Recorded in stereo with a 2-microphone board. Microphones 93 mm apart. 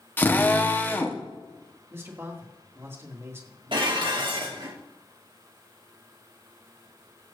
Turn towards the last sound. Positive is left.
turn(degrees=-60)  # may be behind; listen again after turning